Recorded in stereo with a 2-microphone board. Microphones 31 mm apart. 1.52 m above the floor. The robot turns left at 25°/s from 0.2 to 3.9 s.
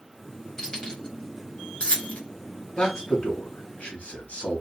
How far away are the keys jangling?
About 1.2 m.